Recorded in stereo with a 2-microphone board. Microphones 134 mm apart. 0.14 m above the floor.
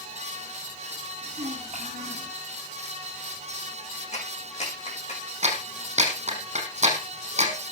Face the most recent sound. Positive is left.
turn(degrees=-60)  # may be behind; listen again after turning